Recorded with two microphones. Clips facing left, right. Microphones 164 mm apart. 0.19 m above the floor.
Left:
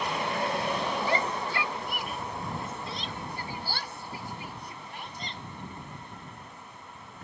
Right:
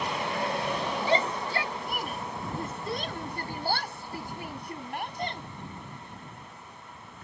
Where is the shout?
25° right (ahead or behind); by 5.4 s 60° right (ahead or behind).